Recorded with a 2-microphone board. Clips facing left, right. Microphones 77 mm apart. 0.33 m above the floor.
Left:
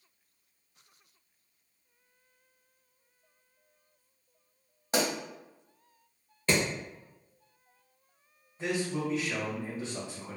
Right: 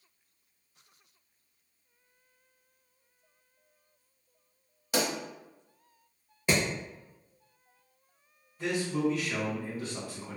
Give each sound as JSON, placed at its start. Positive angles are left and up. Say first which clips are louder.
{"t": 4.9, "sound": "a pop", "louder": "left 1 dB", "side_deg": 30, "distance_m": 1.2}
{"t": 6.5, "sound": "hammering", "louder": "even", "side_deg": -10, "distance_m": 1.0}
{"t": 8.6, "sound": "a man speaking", "louder": "right 2 dB", "side_deg": 25, "distance_m": 1.4}